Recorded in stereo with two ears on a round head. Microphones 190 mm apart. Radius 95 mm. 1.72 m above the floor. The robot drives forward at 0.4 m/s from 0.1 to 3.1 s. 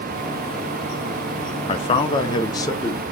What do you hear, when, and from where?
1.7 s a man speaking: 25° left (ahead or behind), 0.5 m; by 3.0 s 15° left (ahead or behind), 0.9 m